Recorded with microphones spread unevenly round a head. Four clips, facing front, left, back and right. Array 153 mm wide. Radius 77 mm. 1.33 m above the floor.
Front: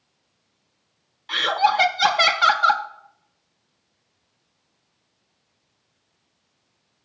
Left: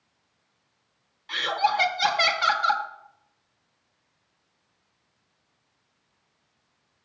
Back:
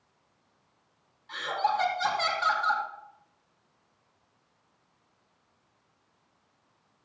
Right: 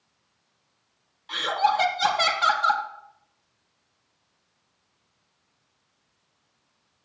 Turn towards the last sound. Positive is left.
turn(degrees=-5)